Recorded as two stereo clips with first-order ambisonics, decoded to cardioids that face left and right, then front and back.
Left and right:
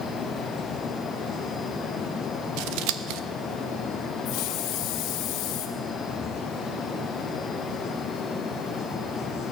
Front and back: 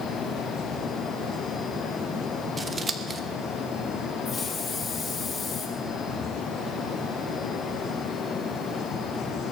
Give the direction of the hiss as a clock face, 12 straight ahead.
10 o'clock.